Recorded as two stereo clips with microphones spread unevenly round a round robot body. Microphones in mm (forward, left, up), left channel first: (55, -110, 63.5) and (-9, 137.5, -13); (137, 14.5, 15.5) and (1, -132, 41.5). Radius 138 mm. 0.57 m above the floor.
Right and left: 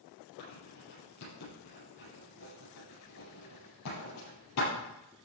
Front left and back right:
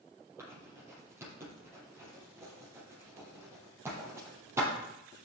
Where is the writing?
55° right, 7 m.